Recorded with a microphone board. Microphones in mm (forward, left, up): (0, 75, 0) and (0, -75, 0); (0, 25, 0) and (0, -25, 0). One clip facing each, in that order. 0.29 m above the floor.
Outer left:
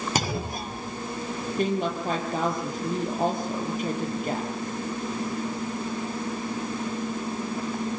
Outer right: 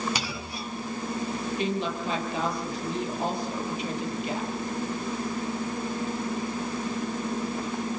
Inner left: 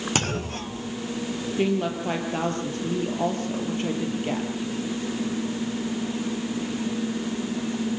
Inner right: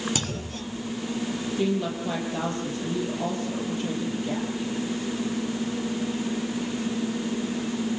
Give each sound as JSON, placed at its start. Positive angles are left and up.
{"t": 0.1, "sound": "a clunk", "side_deg": 45, "distance_m": 0.9}
{"t": 1.6, "sound": "a woman speaking", "side_deg": 45, "distance_m": 9.5}